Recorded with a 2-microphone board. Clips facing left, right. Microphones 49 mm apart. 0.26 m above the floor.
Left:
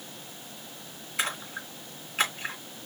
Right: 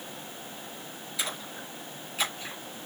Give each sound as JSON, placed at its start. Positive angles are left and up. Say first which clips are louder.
{"t": 1.2, "sound": "a splash", "louder": "left 4 dB", "side_deg": 50, "distance_m": 3.0}